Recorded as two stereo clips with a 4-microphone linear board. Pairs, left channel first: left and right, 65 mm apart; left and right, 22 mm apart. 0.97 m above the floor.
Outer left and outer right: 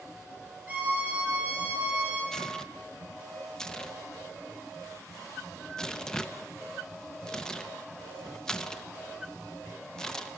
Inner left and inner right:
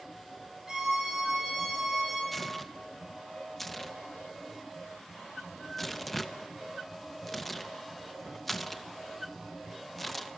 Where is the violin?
20° right (ahead or behind), 4 m.